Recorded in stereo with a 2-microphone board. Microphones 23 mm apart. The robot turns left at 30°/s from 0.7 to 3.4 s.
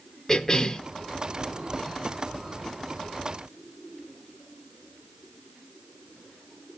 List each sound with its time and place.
0.3 s a cough: 20° left (ahead or behind), 1.1 m